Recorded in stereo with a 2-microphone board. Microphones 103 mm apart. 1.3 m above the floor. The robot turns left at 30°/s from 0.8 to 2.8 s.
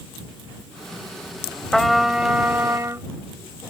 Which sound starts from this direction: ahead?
A trumpet, at 1.7 s.